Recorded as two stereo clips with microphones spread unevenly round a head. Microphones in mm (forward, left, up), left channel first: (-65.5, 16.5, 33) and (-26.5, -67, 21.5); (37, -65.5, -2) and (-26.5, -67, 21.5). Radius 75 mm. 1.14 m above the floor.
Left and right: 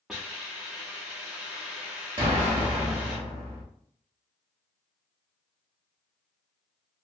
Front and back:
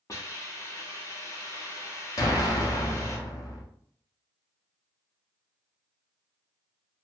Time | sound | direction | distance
0.1 | a hiss | 35° left | 0.6 m
2.2 | an explosion | 25° right | 0.6 m